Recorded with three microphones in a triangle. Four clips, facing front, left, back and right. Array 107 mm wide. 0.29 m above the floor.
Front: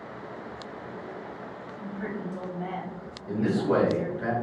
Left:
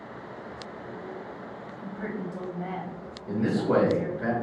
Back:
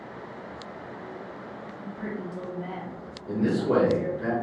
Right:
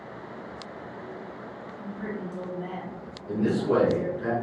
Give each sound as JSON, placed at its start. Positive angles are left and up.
{"t": 1.8, "sound": "a woman speaking", "azimuth_deg": 45, "distance_m": 1.2}
{"t": 3.3, "sound": "a man speaking", "azimuth_deg": 60, "distance_m": 1.7}